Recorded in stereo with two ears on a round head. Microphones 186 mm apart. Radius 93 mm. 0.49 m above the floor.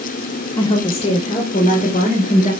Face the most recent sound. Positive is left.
turn(degrees=40)  # may be behind; listen again after turning